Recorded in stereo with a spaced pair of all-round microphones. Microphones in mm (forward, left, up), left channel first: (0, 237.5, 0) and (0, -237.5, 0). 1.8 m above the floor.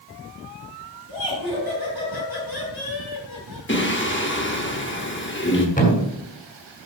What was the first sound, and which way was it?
Laughter, 55° left (ahead or behind).